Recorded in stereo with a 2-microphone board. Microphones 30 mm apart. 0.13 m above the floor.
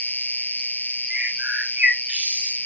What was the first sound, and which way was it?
An insect, 50° left (ahead or behind).